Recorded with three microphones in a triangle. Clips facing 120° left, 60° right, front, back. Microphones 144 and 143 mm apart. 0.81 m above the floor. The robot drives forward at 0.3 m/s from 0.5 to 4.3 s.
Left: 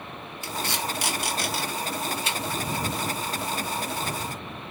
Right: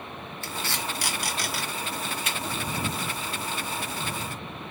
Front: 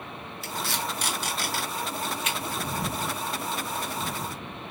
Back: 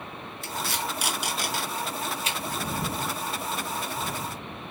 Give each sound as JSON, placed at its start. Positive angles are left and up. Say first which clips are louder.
{"t": 0.4, "sound": "tape being pulled", "louder": "left 3 dB, even", "azimuth_deg": 80, "distance_m": 0.8}